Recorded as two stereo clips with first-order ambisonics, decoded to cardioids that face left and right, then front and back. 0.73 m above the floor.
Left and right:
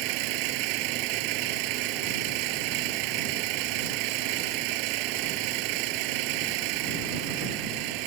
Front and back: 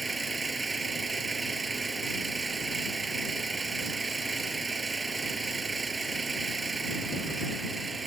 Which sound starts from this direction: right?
An engine running, at 0.0 s.